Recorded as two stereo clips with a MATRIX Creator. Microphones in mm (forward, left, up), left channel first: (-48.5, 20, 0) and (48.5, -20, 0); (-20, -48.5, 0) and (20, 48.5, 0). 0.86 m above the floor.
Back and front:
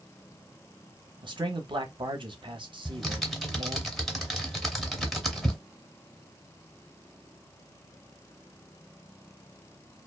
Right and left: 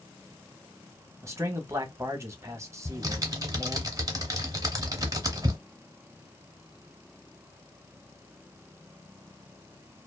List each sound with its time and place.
1.2 s a man speaking: 10° left, 0.8 m
2.9 s typing on a keyboard: 65° left, 0.7 m